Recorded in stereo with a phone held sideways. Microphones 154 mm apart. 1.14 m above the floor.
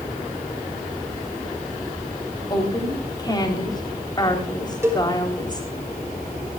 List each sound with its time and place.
2.5 s a woman speaking: 25° left (ahead or behind), 3.5 m
4.8 s a cowbell: 20° right (ahead or behind), 5.5 m